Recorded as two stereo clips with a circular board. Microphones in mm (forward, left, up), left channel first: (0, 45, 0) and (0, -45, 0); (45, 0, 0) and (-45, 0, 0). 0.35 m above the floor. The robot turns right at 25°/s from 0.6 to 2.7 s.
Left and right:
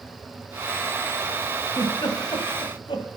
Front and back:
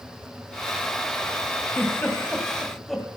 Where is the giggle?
60° left, 1.8 m; by 3.1 s 85° left, 1.8 m.